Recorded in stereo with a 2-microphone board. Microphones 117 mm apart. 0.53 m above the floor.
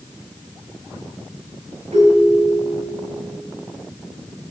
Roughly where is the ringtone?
Right.